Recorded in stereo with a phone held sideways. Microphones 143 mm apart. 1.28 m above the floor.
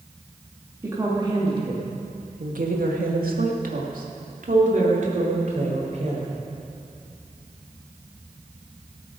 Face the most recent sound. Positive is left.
turn(degrees=-55)  # may be behind; listen again after turning